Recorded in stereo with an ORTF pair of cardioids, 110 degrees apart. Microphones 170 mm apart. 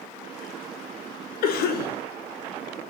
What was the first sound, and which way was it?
A cough, 65° left.